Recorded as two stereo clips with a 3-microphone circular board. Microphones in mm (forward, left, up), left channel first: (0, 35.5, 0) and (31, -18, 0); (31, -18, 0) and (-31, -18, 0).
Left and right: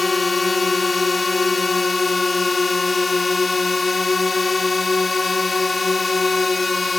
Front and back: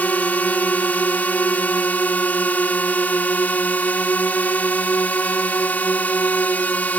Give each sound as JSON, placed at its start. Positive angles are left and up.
{"t": 0.0, "sound": "a drone", "azimuth_deg": 30}